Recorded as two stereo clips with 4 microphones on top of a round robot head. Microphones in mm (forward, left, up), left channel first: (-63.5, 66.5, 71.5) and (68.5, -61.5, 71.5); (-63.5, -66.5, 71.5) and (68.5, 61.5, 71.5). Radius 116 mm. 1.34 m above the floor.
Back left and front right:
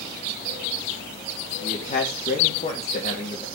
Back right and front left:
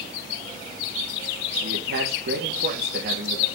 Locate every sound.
1.6 s a man speaking: 80° left, 2.5 m